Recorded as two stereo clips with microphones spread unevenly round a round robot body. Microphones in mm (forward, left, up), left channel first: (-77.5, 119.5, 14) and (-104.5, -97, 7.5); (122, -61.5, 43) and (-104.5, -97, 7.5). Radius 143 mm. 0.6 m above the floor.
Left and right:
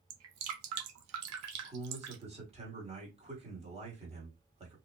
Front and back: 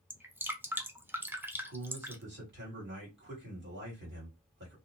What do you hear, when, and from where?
0.1 s dripping: 90° right, 0.7 m
1.5 s a man speaking: 155° right, 2.0 m